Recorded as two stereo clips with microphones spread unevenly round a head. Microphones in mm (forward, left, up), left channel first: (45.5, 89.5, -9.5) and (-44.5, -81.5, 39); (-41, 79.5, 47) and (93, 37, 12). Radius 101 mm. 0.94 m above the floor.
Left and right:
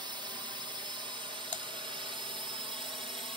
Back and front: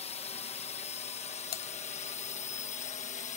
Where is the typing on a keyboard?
150° left.